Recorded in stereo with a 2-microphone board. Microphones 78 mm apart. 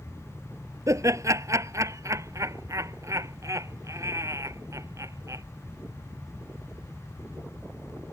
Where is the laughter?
40° right (ahead or behind).